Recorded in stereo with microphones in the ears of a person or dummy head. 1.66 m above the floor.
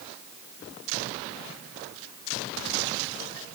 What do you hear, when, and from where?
Only background noise.